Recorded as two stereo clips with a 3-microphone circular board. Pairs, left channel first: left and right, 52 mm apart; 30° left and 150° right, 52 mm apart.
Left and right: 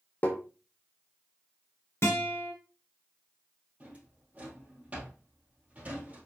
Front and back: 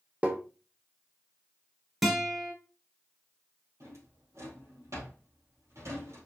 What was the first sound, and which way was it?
Tapping, 145° left.